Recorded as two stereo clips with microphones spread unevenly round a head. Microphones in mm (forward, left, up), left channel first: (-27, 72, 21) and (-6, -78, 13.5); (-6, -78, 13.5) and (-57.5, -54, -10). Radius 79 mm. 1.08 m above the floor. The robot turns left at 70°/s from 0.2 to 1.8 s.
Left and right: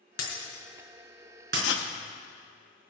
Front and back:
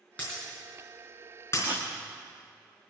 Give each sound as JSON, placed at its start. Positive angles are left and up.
{"t": 0.2, "sound": "breaking glass", "azimuth_deg": 45, "distance_m": 3.0}
{"t": 1.5, "sound": "writing", "azimuth_deg": 85, "distance_m": 0.9}